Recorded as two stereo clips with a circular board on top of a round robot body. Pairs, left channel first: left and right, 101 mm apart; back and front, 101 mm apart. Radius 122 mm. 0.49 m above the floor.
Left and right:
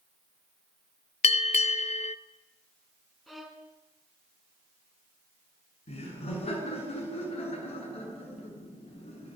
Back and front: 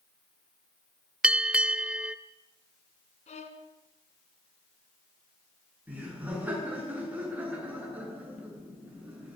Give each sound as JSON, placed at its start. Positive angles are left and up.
{"t": 1.2, "sound": "a bell", "azimuth_deg": 80, "distance_m": 0.6}
{"t": 3.3, "sound": "a violin", "azimuth_deg": 180, "distance_m": 2.5}
{"t": 5.9, "sound": "laughter", "azimuth_deg": 75, "distance_m": 8.5}